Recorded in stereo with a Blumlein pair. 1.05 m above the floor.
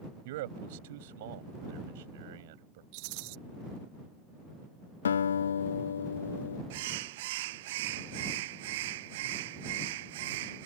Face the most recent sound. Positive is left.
turn(degrees=-50)